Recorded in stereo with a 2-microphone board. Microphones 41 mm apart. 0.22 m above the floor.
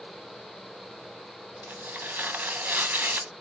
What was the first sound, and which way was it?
Tearing paper, 45° right (ahead or behind).